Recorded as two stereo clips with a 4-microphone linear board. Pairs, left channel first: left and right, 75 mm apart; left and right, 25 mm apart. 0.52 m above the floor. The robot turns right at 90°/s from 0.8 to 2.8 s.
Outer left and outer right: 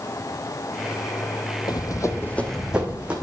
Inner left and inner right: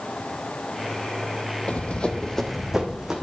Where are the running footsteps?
60° left (ahead or behind), 1.0 m; by 3.2 s 15° right (ahead or behind), 2 m.